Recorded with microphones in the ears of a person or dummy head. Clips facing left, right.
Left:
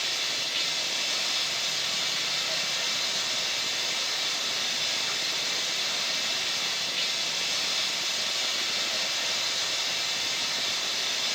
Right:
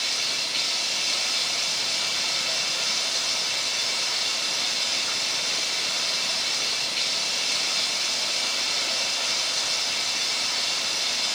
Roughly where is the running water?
Right.